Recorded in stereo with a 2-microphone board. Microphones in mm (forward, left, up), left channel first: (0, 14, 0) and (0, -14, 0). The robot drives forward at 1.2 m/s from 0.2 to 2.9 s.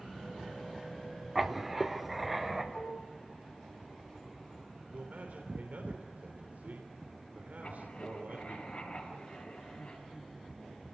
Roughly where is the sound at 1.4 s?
Centre.